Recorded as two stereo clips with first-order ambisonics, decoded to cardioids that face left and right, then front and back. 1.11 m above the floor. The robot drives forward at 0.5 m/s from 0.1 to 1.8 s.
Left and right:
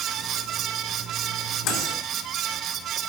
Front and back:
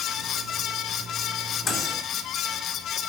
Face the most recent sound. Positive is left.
turn(degrees=80)